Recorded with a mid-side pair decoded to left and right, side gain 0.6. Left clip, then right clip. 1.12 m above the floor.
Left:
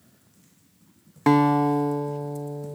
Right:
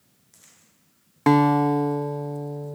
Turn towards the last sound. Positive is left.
turn(degrees=-5)